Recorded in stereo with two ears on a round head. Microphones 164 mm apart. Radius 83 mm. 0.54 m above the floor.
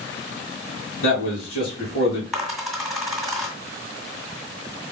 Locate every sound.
1.0 s a man speaking: 75° left (ahead or behind), 3.5 m
2.3 s a dropped coin: centre (ahead or behind), 1.8 m